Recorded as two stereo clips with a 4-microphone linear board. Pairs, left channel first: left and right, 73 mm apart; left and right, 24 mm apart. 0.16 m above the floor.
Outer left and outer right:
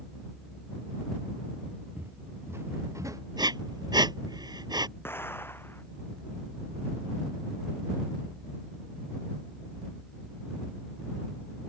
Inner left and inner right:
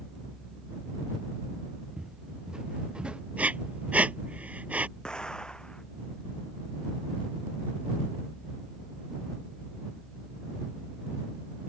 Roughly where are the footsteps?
Right.